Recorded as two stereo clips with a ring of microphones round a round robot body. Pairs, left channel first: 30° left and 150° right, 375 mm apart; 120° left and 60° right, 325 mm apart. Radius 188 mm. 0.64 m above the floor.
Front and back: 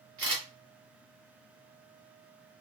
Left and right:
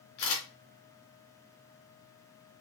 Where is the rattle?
I don't hear a rattle.